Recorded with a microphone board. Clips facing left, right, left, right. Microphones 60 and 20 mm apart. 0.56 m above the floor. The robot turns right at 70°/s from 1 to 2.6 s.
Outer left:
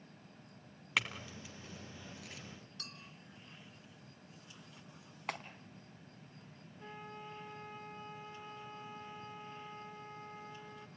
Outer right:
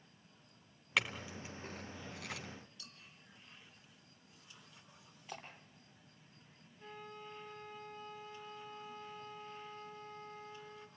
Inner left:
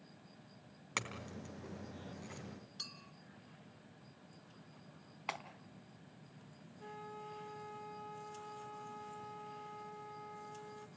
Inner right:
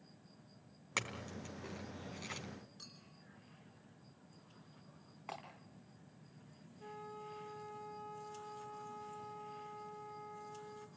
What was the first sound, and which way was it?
A clink, centre (ahead or behind).